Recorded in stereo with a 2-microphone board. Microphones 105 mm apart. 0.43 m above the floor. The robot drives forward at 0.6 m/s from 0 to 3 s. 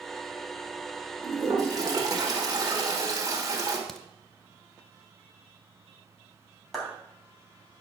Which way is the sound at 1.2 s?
35° right (ahead or behind).